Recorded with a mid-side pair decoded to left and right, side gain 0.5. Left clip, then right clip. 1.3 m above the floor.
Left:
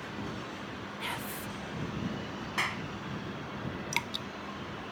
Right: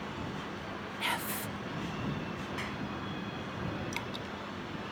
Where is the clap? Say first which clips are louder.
Left 10 dB; 55° left.